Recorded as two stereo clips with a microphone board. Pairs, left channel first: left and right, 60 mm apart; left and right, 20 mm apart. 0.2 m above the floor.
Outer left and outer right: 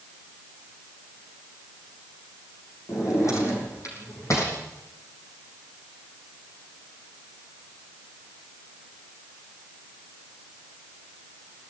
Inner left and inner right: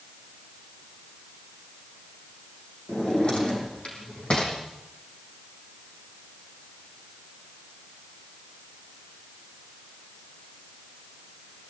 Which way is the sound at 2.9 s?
55° left (ahead or behind).